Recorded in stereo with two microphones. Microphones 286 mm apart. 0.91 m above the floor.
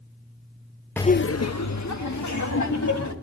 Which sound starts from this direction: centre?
Laughter, at 1.0 s.